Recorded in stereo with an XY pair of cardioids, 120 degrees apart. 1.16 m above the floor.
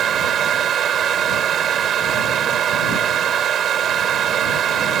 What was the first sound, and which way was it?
A fan, 50° right.